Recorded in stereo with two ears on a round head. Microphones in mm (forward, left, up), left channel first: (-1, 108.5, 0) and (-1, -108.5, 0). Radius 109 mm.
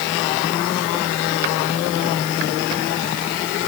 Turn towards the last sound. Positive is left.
No sound to turn to.